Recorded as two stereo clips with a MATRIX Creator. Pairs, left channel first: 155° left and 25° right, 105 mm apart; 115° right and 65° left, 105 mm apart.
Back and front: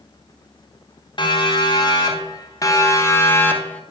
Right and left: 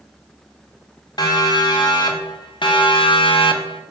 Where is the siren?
160° right, 4 m; by 3.8 s 125° right, 2 m.